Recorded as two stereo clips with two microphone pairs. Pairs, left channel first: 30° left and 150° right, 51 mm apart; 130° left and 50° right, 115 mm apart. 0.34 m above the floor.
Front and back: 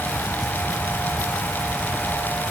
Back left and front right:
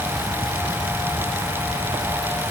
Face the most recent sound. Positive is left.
No sound to turn to.